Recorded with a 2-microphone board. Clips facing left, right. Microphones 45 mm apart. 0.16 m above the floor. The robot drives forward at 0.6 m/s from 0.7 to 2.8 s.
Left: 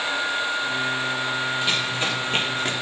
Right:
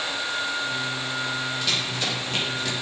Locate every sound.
1.6 s running footsteps: 20° left (ahead or behind), 4 m; by 2.7 s 35° left (ahead or behind), 4.5 m